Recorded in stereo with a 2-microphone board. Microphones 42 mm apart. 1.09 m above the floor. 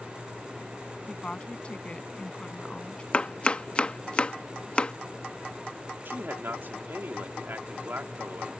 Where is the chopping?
25° left (ahead or behind).